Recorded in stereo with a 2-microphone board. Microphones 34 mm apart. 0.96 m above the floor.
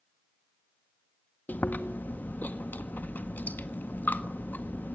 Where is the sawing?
I don't hear sawing.